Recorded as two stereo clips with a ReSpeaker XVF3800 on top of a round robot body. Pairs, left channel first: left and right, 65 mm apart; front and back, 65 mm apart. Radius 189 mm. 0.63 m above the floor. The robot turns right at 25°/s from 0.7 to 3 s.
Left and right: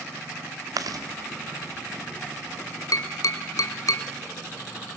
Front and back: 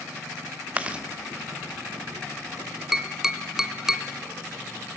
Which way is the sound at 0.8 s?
110° right.